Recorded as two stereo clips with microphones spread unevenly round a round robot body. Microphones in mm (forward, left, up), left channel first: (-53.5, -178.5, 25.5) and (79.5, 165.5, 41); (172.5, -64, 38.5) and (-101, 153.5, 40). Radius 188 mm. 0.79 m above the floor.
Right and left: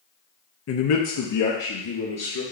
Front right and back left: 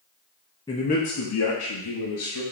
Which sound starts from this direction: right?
A man speaking, at 0.7 s.